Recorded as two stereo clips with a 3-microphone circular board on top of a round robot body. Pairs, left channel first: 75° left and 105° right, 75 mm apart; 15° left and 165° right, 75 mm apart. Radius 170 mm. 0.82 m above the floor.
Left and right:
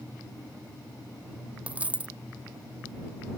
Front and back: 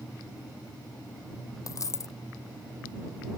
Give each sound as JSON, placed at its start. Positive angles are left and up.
{"t": 1.7, "sound": "a dropped coin", "azimuth_deg": -35}